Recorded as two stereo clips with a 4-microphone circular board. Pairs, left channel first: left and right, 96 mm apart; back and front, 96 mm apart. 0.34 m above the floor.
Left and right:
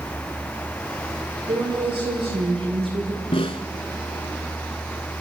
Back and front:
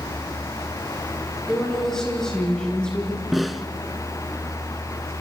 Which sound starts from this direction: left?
A snare drum, at 3.3 s.